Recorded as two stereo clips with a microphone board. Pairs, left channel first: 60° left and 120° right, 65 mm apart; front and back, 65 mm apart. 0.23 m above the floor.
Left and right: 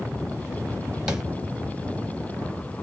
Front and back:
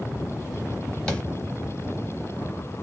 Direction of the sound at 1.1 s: 55° right.